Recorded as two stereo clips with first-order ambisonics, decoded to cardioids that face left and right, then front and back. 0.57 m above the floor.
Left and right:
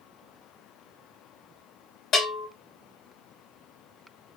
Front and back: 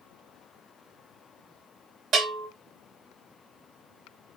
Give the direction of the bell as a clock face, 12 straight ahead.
8 o'clock.